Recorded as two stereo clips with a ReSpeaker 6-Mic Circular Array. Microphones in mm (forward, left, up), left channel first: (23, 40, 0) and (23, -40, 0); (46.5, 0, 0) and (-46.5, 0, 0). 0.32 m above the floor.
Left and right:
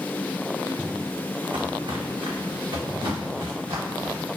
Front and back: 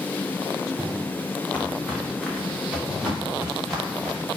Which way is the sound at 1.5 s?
75° right.